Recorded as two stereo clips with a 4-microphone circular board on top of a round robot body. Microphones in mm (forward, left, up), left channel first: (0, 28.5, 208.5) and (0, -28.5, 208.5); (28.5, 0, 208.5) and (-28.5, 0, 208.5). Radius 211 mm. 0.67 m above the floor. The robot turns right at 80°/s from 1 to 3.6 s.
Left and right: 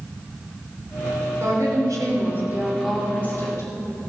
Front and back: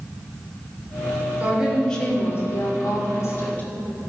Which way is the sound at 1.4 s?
120° right.